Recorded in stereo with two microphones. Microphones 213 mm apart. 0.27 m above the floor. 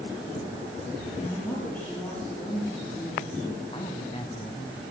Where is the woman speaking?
10° left (ahead or behind), 6 m.